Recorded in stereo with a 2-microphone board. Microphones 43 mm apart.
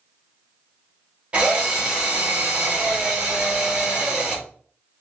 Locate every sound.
1.3 s a drill: 25° right (ahead or behind), 1.0 m